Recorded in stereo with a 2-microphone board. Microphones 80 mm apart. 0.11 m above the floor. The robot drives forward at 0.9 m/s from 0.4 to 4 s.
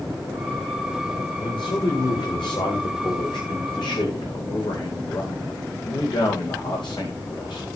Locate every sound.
1.4 s a man speaking: 80° left, 10 m; by 7.7 s 70° left (ahead or behind), 10.5 m